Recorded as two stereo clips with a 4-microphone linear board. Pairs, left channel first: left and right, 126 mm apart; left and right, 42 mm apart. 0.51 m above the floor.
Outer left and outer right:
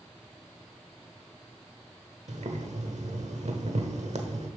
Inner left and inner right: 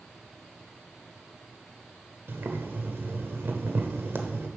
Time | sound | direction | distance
2.3 | boiling | 65° right (ahead or behind) | 1.1 m